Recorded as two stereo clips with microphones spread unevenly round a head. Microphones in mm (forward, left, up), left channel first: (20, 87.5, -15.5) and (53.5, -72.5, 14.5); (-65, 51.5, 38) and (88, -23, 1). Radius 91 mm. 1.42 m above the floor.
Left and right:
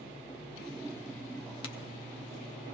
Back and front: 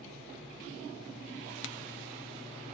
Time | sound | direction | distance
1.6 | a crack | 170° left | 0.7 m